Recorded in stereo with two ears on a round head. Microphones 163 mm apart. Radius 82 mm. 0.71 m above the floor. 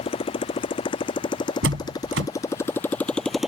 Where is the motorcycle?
30° left (ahead or behind); by 3.5 s 5° right (ahead or behind).